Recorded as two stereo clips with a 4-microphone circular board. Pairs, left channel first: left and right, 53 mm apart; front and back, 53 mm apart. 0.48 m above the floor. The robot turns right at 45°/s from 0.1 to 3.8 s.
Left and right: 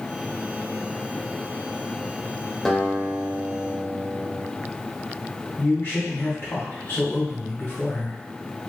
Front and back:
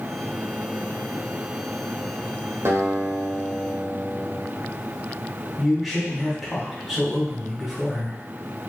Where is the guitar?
170° left, 1.3 m; by 4.5 s 140° right, 1.3 m.